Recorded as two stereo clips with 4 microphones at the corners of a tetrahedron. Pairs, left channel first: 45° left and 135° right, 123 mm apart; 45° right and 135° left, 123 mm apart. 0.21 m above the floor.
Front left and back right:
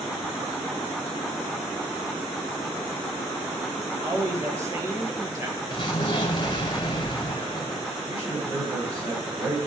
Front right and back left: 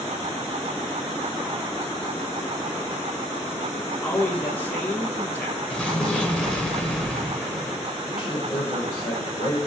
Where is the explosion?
30° left, 1.2 m.